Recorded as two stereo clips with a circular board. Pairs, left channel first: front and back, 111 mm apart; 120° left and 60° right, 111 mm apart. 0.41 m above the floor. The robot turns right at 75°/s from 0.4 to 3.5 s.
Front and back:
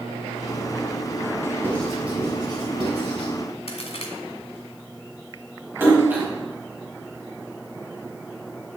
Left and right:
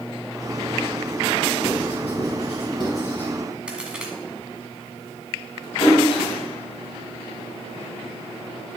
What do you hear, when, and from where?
1.6 s writing: 70° left, 3.5 m; by 3.3 s 165° right, 3.5 m
3.7 s a crack: 20° left, 1.6 m
5.8 s a splash: 110° left, 3 m